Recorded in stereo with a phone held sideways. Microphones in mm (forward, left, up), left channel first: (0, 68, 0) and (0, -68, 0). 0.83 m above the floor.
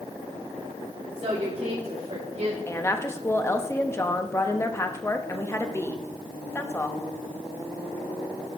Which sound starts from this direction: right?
A woman speaking, at 1.2 s.